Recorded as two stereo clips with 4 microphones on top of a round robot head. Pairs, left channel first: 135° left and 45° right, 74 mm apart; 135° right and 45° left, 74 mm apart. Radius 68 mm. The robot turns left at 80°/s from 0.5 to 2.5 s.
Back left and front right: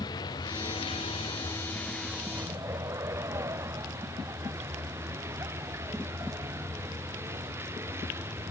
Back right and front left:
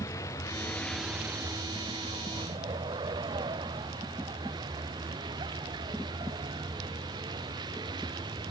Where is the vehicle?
170° left; by 8.5 s 15° left.